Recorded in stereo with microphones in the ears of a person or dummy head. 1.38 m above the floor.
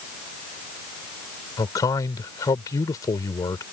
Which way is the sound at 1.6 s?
20° left (ahead or behind).